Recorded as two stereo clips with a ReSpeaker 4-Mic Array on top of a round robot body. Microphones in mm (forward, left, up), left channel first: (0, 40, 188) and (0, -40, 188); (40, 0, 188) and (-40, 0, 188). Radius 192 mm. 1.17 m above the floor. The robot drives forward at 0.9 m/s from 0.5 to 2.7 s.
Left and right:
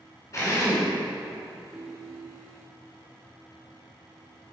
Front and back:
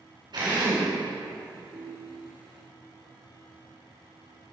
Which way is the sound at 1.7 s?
140° right.